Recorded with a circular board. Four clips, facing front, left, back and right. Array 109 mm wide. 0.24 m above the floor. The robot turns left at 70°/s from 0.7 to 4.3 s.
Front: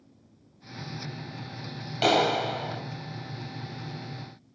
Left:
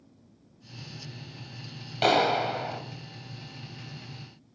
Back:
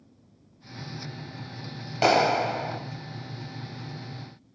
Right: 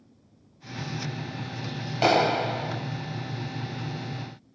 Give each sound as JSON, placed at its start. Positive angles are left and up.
{"t": 2.0, "sound": "a clap", "azimuth_deg": -150, "distance_m": 1.0}